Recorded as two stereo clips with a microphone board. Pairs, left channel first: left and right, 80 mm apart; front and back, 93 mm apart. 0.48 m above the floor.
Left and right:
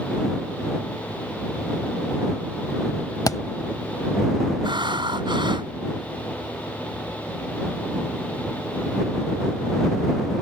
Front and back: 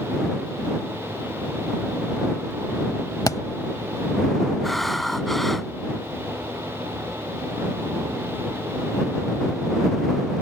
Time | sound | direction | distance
3.3 | a thud | 50° left | ?
4.6 | breathing | 85° right | ?